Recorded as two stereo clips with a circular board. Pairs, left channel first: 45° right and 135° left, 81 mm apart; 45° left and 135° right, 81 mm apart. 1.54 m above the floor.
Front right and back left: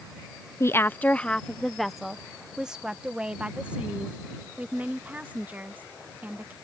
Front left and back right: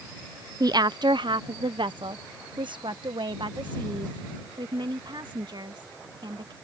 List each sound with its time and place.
0.6 s a woman speaking: 95° right; by 6.5 s 155° right